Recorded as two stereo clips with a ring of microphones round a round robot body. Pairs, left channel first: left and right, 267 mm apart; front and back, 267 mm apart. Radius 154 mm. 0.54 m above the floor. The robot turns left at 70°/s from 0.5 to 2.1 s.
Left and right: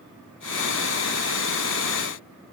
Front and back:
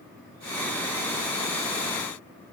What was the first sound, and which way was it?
Only background noise.